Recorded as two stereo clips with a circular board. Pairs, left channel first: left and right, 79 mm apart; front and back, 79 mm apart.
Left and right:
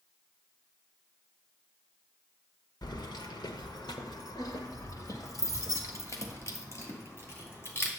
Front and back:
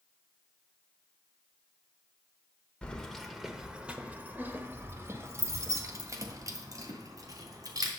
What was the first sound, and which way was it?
Keys jangling, 75° left.